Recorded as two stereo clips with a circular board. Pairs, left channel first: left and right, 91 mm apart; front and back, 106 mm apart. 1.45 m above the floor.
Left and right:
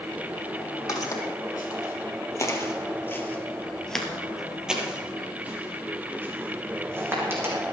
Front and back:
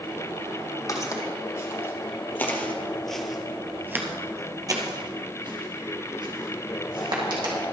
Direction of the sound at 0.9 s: 50° left.